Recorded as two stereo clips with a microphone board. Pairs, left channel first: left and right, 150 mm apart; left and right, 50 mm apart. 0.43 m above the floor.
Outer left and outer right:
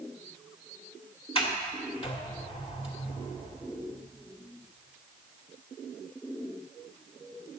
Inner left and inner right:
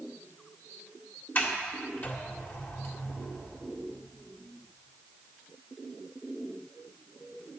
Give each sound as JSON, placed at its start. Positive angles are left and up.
{"t": 1.4, "sound": "a sliding door", "side_deg": 40, "distance_m": 1.8}